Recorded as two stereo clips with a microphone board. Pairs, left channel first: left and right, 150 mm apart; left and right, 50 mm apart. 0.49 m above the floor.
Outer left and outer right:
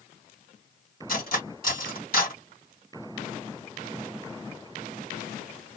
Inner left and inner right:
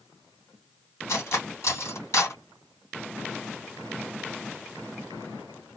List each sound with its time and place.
1.1 s cutlery clinking: 70° left (ahead or behind), 1.9 m